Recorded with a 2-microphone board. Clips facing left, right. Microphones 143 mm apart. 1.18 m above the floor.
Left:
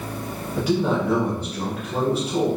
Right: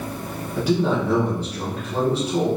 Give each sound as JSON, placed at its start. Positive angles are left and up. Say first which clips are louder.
{"t": 0.6, "sound": "a man speaking", "louder": "right 1 dB", "side_deg": -10, "distance_m": 1.0}